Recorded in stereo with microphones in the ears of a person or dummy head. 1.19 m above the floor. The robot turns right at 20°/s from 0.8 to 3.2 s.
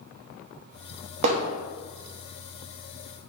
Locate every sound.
1.2 s hammering: 35° right (ahead or behind), 0.6 m; by 1.5 s 40° right (ahead or behind), 0.6 m